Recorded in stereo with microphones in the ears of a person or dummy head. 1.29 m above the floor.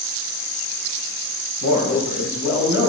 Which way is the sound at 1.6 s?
65° left (ahead or behind).